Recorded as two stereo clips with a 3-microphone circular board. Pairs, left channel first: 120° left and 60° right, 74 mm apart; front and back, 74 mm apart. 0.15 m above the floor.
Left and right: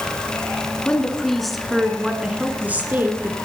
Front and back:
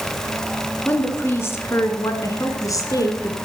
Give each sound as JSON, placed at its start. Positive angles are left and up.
{"t": 0.8, "sound": "a woman speaking", "azimuth_deg": 50, "distance_m": 1.6}